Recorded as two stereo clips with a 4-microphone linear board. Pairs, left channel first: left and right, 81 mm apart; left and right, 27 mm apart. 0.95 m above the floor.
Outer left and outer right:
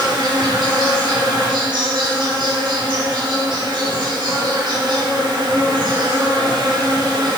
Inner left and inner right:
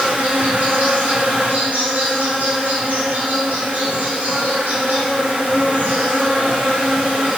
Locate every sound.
0.0 s an insect: 65° right (ahead or behind), 4 m